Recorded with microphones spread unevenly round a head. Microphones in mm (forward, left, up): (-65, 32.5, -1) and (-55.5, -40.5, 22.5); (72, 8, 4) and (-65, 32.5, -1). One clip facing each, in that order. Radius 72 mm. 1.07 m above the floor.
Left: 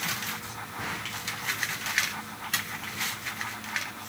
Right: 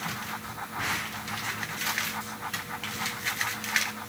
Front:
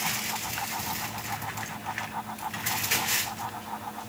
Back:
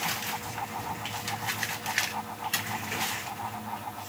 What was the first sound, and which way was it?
Only background noise.